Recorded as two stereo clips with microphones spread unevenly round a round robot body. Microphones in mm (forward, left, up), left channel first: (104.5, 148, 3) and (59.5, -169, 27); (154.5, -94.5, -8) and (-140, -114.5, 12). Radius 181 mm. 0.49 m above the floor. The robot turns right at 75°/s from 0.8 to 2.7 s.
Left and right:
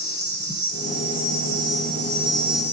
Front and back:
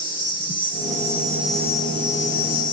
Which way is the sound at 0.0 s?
135° right.